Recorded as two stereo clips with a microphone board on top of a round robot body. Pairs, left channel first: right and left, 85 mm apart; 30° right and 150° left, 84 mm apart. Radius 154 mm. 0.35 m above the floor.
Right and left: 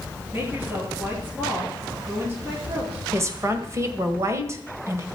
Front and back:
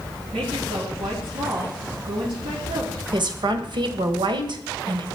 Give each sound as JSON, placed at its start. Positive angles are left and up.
{"t": 0.3, "sound": "a woman speaking", "azimuth_deg": 155, "distance_m": 8.0}
{"t": 3.1, "sound": "a woman speaking", "azimuth_deg": 140, "distance_m": 2.0}